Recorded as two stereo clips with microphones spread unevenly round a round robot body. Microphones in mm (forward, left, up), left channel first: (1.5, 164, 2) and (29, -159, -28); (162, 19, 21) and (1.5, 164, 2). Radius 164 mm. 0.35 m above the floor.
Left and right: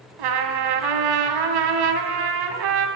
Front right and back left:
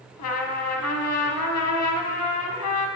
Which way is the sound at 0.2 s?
70° right.